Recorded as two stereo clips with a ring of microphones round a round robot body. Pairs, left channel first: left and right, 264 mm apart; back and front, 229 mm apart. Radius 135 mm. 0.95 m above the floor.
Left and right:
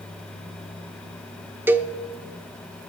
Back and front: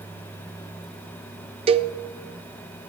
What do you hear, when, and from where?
1.7 s a cowbell: 20° right, 0.5 m